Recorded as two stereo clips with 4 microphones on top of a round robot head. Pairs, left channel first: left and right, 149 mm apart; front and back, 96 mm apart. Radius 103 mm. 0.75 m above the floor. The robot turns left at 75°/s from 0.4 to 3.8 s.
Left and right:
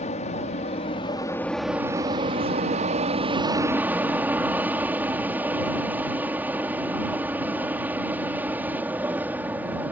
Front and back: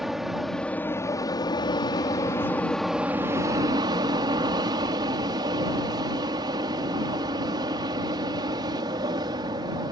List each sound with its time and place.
0.0 s an aircraft: 90° left; by 9.9 s 165° right